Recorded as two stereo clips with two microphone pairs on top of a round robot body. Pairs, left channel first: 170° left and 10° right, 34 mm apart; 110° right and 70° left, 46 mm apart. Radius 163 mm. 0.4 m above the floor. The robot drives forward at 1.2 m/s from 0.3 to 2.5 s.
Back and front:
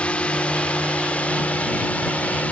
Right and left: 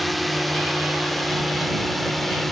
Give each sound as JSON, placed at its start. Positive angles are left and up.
{"t": 0.0, "sound": "a drone", "azimuth_deg": 155}